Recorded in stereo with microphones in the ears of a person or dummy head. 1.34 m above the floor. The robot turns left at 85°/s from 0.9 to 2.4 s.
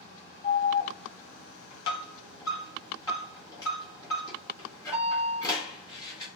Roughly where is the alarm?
Left.